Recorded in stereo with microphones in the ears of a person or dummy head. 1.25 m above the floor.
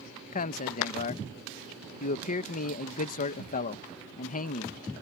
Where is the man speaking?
40° left (ahead or behind).